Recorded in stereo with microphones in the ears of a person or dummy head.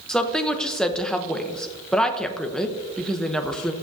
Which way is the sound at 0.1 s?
5° left (ahead or behind).